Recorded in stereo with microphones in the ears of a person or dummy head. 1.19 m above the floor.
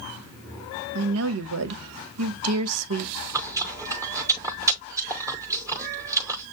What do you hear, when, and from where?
0.9 s a woman speaking: 90° right, 0.8 m
3.3 s chewing: 15° right (ahead or behind), 0.7 m